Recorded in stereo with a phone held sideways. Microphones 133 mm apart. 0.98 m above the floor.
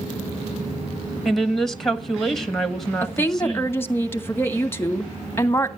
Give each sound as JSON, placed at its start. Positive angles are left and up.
{"t": 1.2, "sound": "a woman speaking", "side_deg": 0, "distance_m": 1.5}
{"t": 3.0, "sound": "a woman speaking", "side_deg": 15, "distance_m": 1.5}